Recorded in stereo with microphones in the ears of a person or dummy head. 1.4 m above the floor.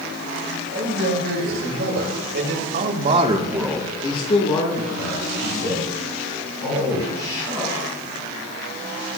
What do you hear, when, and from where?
0.7 s a man speaking: 85° right, 4 m; by 7.7 s 70° left (ahead or behind), 6 m